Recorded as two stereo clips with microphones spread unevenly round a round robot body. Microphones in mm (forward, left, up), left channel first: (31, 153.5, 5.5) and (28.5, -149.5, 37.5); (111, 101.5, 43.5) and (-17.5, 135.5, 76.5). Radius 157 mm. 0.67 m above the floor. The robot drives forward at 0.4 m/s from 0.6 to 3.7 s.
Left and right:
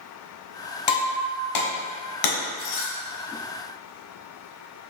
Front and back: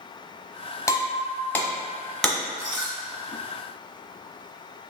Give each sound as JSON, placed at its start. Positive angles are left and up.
{"t": 0.9, "sound": "breaking glass", "azimuth_deg": 55, "distance_m": 1.6}